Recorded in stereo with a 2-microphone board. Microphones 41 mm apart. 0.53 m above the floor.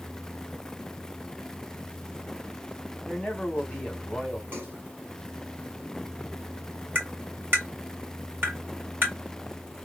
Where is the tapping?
45° right (ahead or behind), 1.9 m.